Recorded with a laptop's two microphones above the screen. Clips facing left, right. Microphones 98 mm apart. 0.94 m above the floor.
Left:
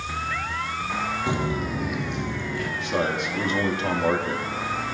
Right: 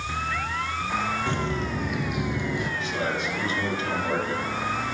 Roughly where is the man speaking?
Left.